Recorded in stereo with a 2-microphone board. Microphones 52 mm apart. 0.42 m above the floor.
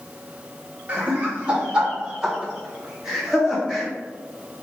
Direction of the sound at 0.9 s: 25° right (ahead or behind).